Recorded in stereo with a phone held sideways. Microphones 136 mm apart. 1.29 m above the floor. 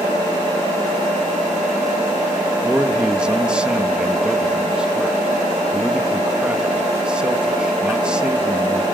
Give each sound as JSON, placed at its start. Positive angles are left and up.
{"t": 2.6, "sound": "a man speaking", "side_deg": -5, "distance_m": 1.7}